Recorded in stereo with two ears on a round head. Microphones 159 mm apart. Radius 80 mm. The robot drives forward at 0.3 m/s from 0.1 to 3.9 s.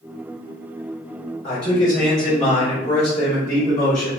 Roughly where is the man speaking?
Left.